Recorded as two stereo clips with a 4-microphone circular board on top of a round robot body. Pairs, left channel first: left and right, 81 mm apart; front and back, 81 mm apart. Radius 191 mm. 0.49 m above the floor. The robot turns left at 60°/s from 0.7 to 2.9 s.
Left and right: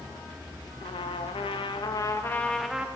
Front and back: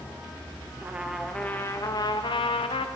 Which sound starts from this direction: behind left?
A trumpet, at 0.8 s.